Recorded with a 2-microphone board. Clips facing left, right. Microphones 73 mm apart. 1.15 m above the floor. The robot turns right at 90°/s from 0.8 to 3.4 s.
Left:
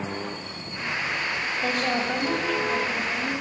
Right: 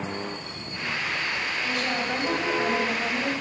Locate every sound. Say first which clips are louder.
1.6 s a woman speaking: left 4 dB; 125° left, 7 m; by 3.3 s 80° right, 7 m